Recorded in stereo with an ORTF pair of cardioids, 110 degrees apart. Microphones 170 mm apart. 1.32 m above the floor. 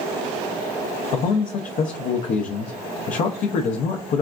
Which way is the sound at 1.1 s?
50° left.